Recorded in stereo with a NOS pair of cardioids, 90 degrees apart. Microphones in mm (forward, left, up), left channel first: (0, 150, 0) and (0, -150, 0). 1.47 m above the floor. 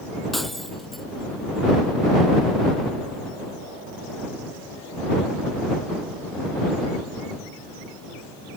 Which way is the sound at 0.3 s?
Straight ahead.